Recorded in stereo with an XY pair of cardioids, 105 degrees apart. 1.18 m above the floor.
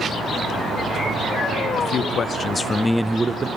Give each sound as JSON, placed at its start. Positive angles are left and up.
{"t": 1.8, "sound": "a man speaking", "azimuth_deg": 55, "distance_m": 1.1}